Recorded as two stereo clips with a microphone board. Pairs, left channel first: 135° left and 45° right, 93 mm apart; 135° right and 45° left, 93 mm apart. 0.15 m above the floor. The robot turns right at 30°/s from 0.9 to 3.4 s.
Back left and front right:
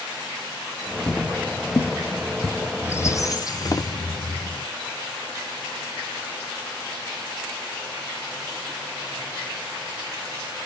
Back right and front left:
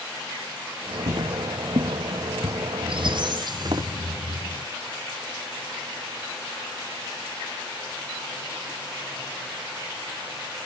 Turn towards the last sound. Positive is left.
turn(degrees=85)